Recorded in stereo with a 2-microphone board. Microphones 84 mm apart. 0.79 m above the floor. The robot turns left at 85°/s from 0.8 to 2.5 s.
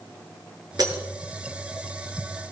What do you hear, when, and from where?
0.8 s breaking glass: 55° right (ahead or behind), 6 m; by 1.0 s 35° right (ahead or behind), 6 m